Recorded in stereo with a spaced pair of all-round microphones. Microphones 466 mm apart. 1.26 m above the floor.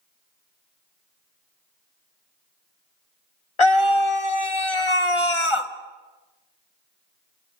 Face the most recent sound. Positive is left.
turn(degrees=80)